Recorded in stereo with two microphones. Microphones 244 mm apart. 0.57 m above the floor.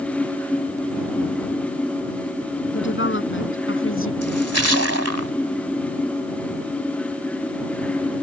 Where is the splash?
80° right.